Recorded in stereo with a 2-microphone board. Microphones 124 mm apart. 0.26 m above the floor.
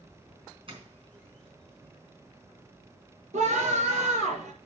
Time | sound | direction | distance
0.7 | a doorbell | 45° right (ahead or behind) | 4 m
3.3 | a scream | 70° right (ahead or behind) | 5.5 m